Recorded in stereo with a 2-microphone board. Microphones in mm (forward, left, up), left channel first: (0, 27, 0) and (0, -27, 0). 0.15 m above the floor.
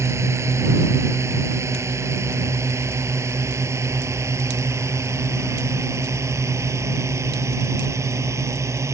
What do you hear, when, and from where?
0.0 s a drone: 60° right (ahead or behind); by 8.9 s 65° right (ahead or behind)